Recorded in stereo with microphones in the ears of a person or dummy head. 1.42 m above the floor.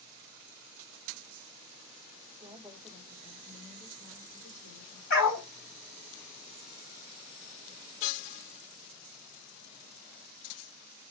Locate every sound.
2.4 s a woman speaking: 15° right (ahead or behind), 0.9 m; by 5.0 s 50° left (ahead or behind), 1.9 m
5.1 s a dog barking: 50° left (ahead or behind), 1.4 m